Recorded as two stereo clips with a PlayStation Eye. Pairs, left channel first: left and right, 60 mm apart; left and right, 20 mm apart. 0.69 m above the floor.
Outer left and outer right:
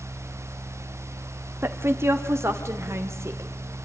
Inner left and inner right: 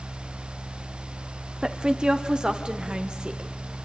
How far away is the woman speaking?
About 1.5 m.